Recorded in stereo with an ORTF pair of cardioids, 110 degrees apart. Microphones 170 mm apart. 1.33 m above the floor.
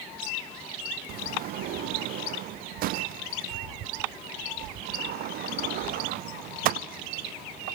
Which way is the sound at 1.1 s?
70° right.